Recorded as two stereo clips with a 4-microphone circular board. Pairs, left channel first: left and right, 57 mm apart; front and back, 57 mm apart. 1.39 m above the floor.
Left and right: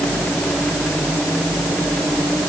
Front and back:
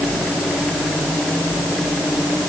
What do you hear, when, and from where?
Only background noise.